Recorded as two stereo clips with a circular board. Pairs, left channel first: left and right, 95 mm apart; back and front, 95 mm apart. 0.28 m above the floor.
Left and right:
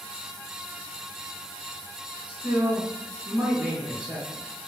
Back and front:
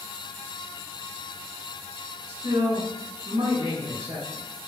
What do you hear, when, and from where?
2.3 s a man speaking: 15° right, 1.9 m